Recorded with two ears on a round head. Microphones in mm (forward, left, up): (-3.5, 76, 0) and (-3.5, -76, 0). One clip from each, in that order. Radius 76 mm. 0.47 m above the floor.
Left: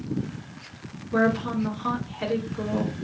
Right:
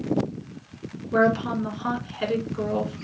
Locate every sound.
1.1 s a woman speaking: 45° right (ahead or behind), 2 m